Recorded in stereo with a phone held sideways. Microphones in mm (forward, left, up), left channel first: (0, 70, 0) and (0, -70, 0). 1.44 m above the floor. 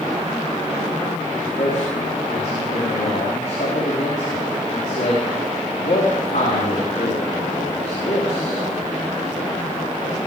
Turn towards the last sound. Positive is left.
turn(degrees=70)  # may be behind; listen again after turning